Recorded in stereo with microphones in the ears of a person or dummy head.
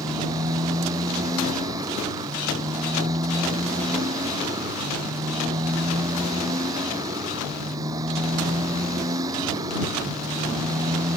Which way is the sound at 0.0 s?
25° right (ahead or behind).